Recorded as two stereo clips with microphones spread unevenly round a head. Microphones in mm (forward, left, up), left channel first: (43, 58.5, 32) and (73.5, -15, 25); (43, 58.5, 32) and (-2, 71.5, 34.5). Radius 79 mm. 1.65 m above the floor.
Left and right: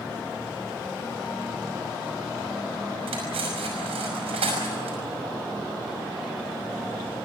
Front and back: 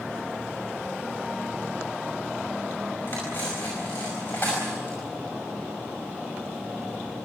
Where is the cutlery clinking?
90° right, 5.5 m.